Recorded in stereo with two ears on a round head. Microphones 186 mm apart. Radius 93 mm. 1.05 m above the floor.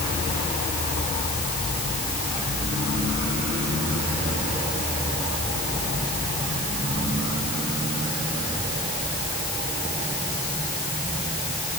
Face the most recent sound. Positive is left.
No sound to turn to.